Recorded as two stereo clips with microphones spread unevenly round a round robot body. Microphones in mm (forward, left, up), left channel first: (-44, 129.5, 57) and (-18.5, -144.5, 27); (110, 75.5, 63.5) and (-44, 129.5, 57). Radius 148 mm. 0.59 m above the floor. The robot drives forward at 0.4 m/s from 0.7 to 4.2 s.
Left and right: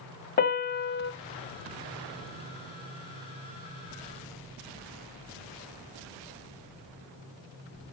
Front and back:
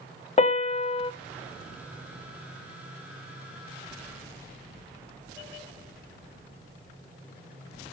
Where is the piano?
35° left, 0.9 m; by 1.1 s 40° left, 0.8 m.